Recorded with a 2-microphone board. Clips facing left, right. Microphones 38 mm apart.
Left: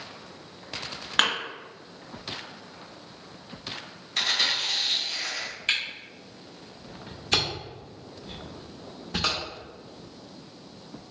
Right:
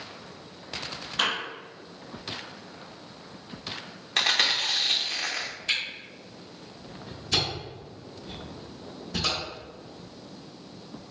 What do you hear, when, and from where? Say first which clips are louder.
1.2 s a thud: left 3 dB; 80° left, 1.7 m
4.2 s chewing: right 2 dB; 65° right (ahead or behind), 0.7 m
5.7 s a camera shutter: left 2 dB; 45° left (ahead or behind), 1.2 m